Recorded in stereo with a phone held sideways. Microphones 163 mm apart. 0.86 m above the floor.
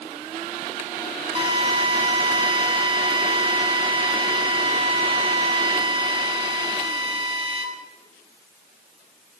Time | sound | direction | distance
1.4 | a drill | 35° right (ahead or behind) | 9 m